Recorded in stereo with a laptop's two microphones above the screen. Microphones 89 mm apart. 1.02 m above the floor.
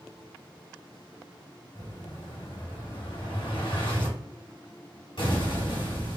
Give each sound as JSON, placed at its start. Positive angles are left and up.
{"t": 1.8, "sound": "an explosion", "side_deg": 65, "distance_m": 1.6}